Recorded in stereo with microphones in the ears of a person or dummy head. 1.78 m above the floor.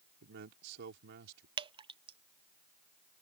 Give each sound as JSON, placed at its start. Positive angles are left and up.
{"t": 0.2, "sound": "a man speaking", "side_deg": -60}
{"t": 1.6, "sound": "dripping", "side_deg": -25}